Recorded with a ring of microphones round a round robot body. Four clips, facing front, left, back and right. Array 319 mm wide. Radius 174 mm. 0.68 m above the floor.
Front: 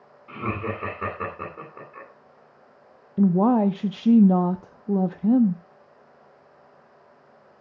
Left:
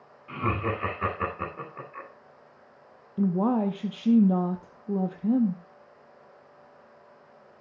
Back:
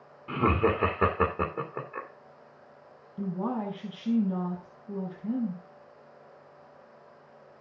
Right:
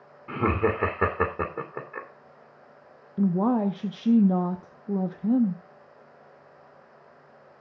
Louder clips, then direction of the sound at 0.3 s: Right 5 dB, back 5 dB; 125° right.